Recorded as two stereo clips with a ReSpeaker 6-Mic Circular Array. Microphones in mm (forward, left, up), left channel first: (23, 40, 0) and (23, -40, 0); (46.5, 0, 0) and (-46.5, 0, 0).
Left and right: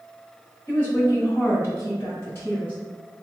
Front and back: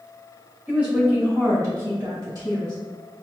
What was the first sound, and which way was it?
A woman speaking, 110° left.